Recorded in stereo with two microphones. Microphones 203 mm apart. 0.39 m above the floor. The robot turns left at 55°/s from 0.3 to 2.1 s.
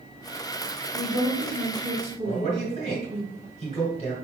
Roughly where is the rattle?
No rattle in this recording.